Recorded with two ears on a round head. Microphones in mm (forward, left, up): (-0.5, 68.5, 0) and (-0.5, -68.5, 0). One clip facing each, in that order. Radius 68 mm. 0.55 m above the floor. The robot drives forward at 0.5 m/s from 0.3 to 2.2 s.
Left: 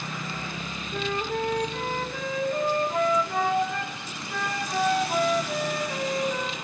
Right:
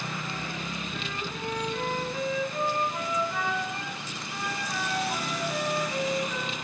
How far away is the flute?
About 1.5 m.